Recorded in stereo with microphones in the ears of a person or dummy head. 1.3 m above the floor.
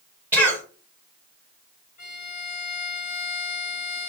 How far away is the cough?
About 1.6 m.